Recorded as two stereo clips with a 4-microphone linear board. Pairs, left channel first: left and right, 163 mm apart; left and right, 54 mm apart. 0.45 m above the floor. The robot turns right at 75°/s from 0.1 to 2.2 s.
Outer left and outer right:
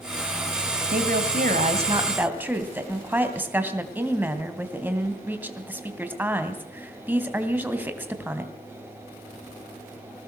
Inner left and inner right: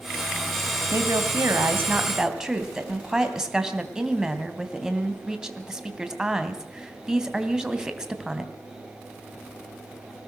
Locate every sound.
0.9 s a woman speaking: 110° right, 2.5 m; by 8.5 s 10° right, 2.5 m